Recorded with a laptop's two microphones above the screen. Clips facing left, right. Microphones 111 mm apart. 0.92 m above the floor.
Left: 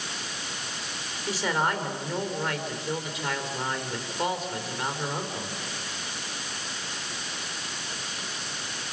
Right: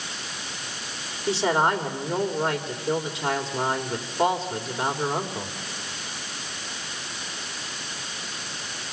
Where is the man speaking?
30° right (ahead or behind), 3 m.